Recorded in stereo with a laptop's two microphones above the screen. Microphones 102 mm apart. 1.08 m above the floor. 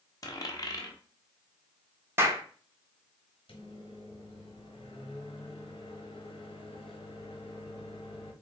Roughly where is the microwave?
Left.